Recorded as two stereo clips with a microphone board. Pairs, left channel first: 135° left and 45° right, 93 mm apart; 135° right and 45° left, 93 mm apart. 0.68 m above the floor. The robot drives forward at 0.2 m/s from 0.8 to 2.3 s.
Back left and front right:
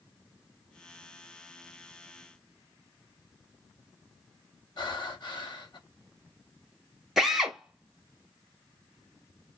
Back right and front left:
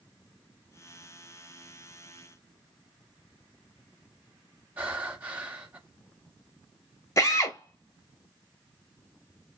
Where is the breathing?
115° left, 0.6 m.